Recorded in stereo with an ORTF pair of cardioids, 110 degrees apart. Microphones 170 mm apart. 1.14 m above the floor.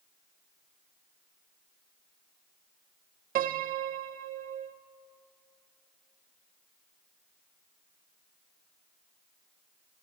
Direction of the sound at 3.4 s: 55° right.